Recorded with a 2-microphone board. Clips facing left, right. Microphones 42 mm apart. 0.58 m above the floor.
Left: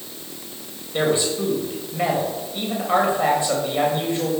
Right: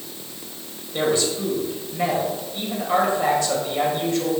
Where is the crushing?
No crushing in this recording.